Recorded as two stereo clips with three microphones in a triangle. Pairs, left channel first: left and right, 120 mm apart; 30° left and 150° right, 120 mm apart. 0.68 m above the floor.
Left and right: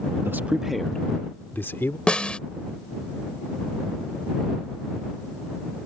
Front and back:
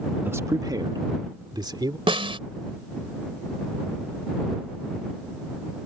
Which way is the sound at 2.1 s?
170° left.